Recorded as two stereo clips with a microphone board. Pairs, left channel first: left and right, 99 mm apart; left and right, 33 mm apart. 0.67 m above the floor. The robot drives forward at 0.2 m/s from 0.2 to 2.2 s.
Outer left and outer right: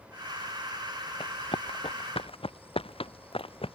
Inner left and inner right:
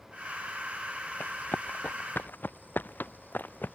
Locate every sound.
1.2 s running footsteps: 70° left (ahead or behind)